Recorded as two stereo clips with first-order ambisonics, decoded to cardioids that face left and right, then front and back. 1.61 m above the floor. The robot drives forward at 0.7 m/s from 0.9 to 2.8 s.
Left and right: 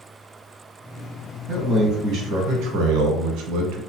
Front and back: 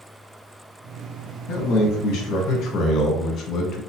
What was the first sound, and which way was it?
A man speaking, 30° right.